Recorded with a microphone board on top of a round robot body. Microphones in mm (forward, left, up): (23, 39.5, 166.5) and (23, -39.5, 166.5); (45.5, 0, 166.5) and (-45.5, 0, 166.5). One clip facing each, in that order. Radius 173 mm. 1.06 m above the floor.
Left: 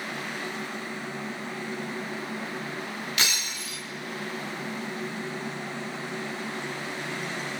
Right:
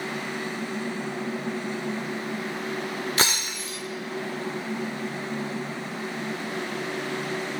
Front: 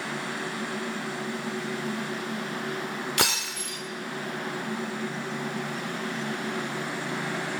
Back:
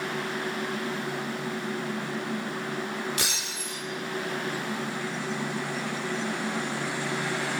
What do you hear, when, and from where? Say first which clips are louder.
3.2 s breaking glass: right 3 dB, front 5 dB; 35° right, 1.1 m